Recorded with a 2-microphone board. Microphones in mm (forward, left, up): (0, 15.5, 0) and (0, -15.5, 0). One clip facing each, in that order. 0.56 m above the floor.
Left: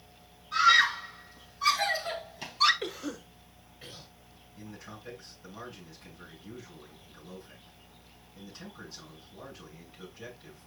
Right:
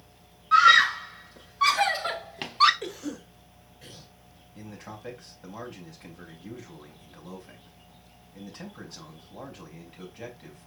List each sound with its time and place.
0.5 s a scream: 70° right (ahead or behind), 2.5 m; by 2.7 s 45° right (ahead or behind), 1.3 m
2.8 s a cough: 20° left (ahead or behind), 1.6 m
4.5 s a man speaking: 60° right (ahead or behind), 4 m